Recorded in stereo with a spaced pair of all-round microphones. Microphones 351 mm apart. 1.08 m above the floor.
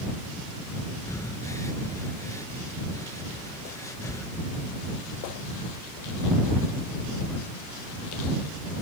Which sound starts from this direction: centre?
Breathing, at 1.1 s.